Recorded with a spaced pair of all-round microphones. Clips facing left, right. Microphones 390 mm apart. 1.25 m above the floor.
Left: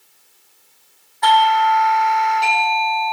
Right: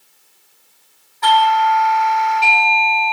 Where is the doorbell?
15° right (ahead or behind), 5 m.